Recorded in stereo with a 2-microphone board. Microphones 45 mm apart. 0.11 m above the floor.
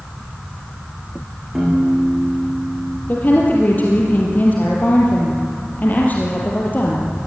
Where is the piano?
5° right (ahead or behind), 8 m.